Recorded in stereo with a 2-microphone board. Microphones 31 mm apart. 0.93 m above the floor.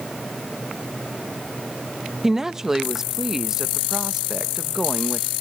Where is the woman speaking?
10° right (ahead or behind), 0.7 m.